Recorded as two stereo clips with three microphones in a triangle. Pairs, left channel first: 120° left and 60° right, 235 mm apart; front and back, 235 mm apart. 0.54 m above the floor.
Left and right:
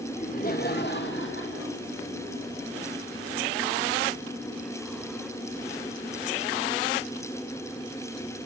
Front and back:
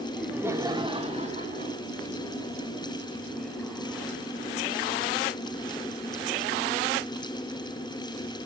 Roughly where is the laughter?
Left.